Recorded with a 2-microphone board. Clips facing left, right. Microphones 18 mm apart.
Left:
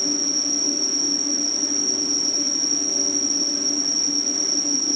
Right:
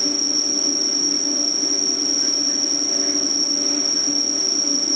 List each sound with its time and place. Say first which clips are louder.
0.0 s an insect: right 2 dB; 35° right (ahead or behind), 1.2 m